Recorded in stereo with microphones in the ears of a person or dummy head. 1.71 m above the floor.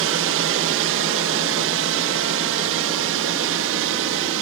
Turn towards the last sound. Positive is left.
turn(degrees=-65)  # may be behind; listen again after turning